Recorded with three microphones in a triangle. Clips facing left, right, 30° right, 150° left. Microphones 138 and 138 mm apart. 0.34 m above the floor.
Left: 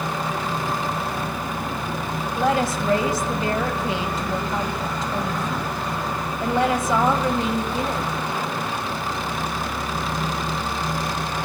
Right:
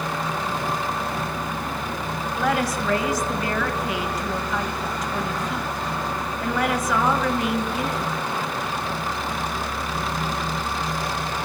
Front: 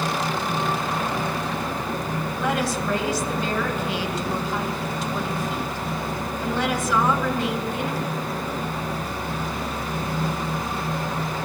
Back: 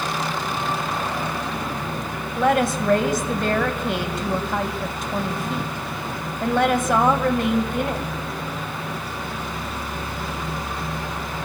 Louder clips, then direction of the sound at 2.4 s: Left 2 dB, back 7 dB; 145° left.